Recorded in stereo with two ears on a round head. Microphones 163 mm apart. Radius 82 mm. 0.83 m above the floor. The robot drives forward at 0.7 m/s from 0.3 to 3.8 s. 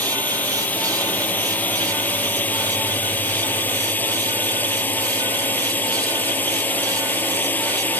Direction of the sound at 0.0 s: 10° left (ahead or behind).